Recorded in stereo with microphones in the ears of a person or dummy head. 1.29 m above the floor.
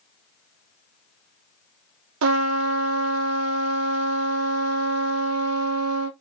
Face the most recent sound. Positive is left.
turn(degrees=-75)  # may be behind; listen again after turning